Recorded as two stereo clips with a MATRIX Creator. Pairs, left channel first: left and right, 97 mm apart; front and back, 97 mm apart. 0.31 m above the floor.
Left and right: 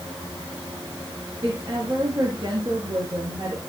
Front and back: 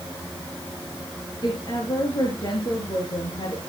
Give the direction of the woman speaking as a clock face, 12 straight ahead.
1 o'clock.